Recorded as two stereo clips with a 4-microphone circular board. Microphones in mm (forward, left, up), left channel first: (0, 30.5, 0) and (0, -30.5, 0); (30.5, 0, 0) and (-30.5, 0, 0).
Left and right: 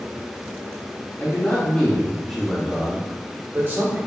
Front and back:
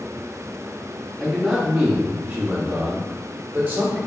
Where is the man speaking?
100° left, 0.9 m; by 4.0 s 125° right, 1.2 m.